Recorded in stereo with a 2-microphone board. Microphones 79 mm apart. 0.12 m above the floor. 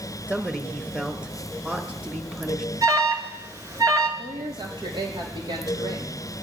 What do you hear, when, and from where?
0.3 s a man speaking: 10° right (ahead or behind), 1.5 m
2.8 s an alarm: 40° right (ahead or behind), 2.5 m
4.2 s a woman speaking: 75° right (ahead or behind), 6 m